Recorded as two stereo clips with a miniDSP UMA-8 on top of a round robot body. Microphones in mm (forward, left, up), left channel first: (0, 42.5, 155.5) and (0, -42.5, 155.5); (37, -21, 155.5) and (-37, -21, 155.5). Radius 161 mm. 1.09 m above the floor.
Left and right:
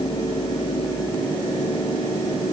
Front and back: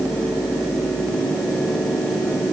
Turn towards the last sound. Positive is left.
No sound to turn to.